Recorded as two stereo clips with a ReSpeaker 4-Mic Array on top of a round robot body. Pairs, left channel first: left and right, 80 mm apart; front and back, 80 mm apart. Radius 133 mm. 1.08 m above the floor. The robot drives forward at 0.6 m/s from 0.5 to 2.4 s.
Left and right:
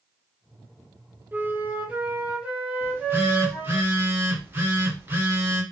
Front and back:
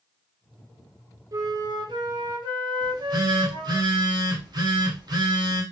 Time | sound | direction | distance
1.3 | a flute | 150° right | 0.8 m
2.8 | a phone buzzing | 150° right | 1.2 m